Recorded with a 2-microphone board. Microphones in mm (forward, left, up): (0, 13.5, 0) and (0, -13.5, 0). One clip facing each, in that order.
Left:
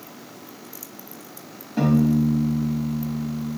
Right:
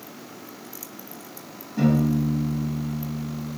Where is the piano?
60° left (ahead or behind), 1.3 m.